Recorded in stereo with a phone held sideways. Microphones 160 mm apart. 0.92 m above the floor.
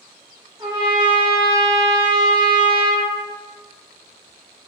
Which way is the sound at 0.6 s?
30° right (ahead or behind).